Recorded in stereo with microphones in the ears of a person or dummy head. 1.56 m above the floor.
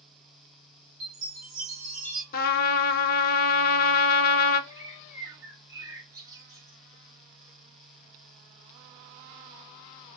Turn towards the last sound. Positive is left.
turn(degrees=-15)  # may be behind; listen again after turning